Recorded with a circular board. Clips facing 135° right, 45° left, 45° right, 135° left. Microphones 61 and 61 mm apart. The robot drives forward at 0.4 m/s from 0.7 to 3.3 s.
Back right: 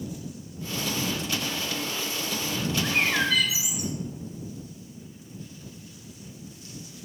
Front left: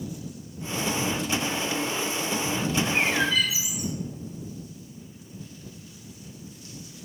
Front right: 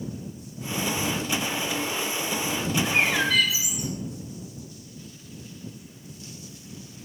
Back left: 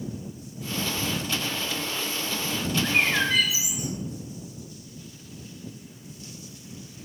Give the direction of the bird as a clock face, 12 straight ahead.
5 o'clock.